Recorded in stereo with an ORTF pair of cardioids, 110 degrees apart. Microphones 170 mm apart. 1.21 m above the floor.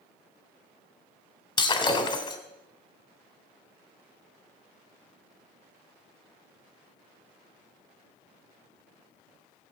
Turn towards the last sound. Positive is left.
turn(degrees=25)